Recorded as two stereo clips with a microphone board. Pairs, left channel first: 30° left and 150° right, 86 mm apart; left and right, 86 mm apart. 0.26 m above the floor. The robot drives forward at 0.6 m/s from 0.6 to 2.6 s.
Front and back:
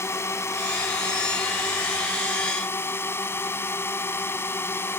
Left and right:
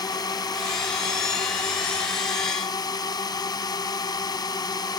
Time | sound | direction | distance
0.0 | a drone | 80° left | ?